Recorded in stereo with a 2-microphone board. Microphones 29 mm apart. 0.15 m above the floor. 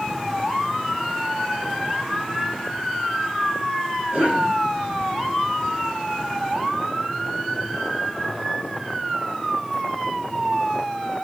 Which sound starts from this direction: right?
A cough, at 4.1 s.